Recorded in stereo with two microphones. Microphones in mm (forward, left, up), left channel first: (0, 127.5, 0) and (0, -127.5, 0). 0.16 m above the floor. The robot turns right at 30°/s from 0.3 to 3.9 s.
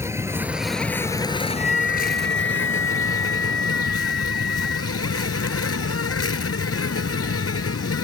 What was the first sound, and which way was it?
An insect, 10° right.